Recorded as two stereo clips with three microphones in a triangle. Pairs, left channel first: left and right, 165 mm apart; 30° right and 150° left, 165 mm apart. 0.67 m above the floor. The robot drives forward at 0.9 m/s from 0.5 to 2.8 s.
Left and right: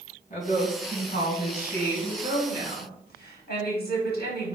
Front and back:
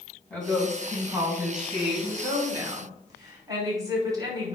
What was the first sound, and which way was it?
A woman speaking, 55° left.